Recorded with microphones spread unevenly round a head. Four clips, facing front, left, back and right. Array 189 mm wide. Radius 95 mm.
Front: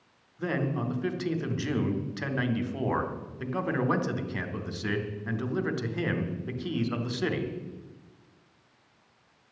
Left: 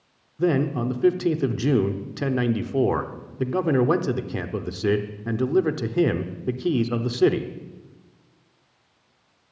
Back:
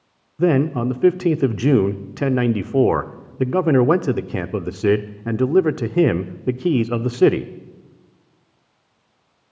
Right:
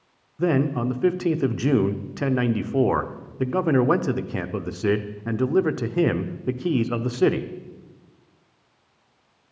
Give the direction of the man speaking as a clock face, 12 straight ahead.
6 o'clock.